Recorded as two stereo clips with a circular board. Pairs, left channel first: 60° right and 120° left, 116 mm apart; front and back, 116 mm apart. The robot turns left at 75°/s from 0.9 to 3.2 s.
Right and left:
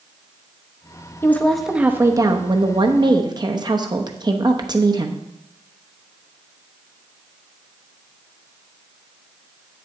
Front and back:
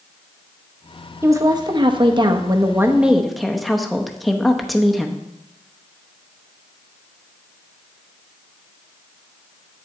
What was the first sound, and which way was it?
A woman speaking, 120° right.